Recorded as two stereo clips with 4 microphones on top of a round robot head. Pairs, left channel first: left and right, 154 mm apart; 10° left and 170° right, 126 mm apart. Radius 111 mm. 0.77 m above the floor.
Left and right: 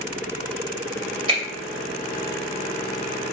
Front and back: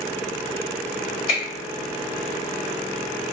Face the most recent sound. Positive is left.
turn(degrees=-35)